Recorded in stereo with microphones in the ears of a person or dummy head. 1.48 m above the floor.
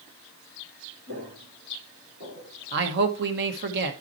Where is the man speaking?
55° right (ahead or behind), 1.3 m.